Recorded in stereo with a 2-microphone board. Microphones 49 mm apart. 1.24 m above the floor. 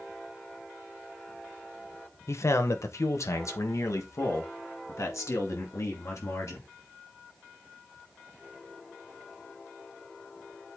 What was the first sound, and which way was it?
A man speaking, 65° left (ahead or behind).